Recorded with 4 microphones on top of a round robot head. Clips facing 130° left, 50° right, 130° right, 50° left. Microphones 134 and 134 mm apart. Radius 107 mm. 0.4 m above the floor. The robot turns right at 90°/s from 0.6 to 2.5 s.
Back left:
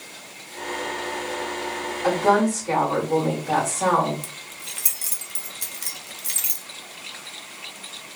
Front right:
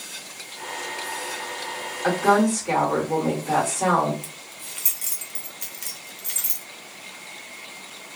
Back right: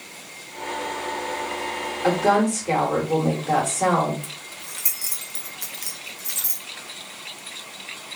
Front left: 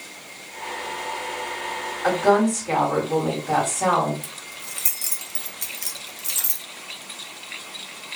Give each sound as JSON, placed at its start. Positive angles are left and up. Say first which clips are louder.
{"t": 2.0, "sound": "a woman speaking", "louder": "even, front left 1 dB", "azimuth_deg": -165, "distance_m": 1.6}
{"t": 4.2, "sound": "keys jangling", "louder": "back left 1 dB, even", "azimuth_deg": 95, "distance_m": 0.8}